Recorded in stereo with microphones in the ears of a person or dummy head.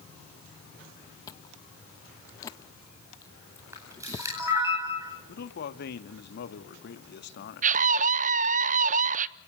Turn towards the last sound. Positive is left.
turn(degrees=-30)  # may be behind; listen again after turning